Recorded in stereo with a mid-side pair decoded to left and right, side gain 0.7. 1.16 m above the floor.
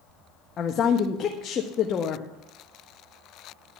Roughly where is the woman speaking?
Ahead left.